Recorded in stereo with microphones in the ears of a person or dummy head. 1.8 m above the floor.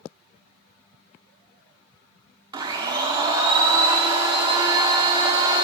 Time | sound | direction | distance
2.5 | a blender | 25° right (ahead or behind) | 0.8 m